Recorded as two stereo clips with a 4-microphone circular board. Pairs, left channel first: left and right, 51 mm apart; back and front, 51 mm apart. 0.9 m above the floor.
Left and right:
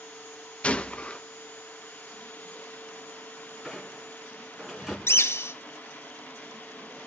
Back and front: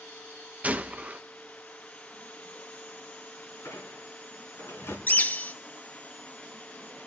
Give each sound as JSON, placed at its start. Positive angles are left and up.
{"t": 0.6, "sound": "a gunshot", "azimuth_deg": 40, "distance_m": 0.5}
{"t": 3.6, "sound": "a squeak", "azimuth_deg": -170, "distance_m": 3.5}
{"t": 5.1, "sound": "a bird", "azimuth_deg": 125, "distance_m": 0.6}